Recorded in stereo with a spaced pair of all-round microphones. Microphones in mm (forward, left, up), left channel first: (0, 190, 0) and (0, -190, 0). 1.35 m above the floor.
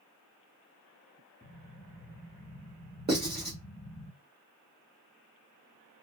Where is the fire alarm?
No fire alarm in this recording.